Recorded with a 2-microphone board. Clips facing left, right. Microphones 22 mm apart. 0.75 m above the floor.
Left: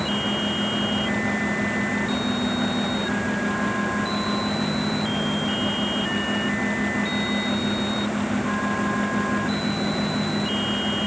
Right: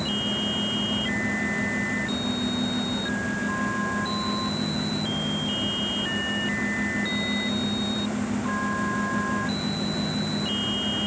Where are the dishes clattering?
No dishes clattering in this recording.